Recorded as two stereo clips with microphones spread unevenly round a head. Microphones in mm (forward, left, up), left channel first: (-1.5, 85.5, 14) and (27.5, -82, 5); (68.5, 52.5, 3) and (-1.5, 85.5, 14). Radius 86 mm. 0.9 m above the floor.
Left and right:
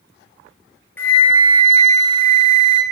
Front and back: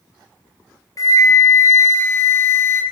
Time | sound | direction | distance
1.0 | a flute | 20° left | 1.0 m